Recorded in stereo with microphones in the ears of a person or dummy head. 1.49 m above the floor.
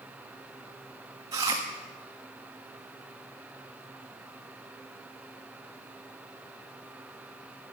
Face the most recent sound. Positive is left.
turn(degrees=-20)  # may be behind; listen again after turning